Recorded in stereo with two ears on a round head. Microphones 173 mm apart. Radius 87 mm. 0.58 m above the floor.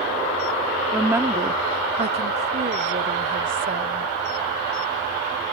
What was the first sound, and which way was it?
A woman speaking, 5° right (ahead or behind).